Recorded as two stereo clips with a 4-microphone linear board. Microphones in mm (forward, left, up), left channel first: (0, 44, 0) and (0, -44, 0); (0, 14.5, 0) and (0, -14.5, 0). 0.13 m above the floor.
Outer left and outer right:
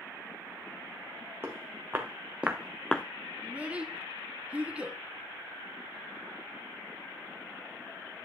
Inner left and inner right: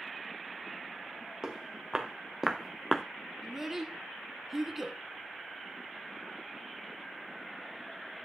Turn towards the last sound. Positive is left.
turn(degrees=-15)  # may be behind; listen again after turning